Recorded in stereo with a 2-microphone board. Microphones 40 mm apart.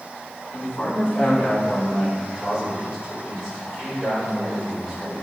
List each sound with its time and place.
0.5 s a man speaking: 35° left (ahead or behind), 4 m; by 5.2 s 5° right (ahead or behind), 4.5 m